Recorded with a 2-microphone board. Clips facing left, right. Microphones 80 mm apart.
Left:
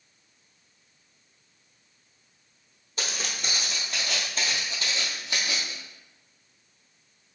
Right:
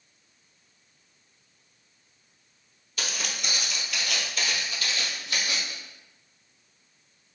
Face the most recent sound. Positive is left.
turn(degrees=20)  # may be behind; listen again after turning